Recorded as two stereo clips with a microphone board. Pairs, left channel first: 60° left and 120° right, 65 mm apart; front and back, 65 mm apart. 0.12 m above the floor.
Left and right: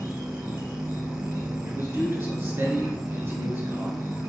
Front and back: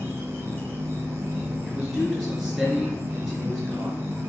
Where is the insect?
155° right, 2.5 m.